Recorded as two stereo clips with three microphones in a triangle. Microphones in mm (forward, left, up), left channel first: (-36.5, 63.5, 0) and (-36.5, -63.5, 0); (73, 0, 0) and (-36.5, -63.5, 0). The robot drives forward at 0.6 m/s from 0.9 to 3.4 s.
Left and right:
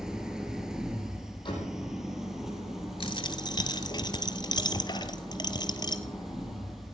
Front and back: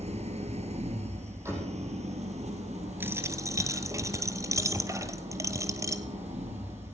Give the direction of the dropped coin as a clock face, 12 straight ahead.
7 o'clock.